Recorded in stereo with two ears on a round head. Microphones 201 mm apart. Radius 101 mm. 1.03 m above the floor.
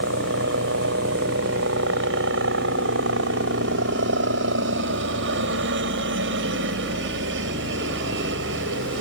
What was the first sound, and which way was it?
A helicopter, 55° right (ahead or behind).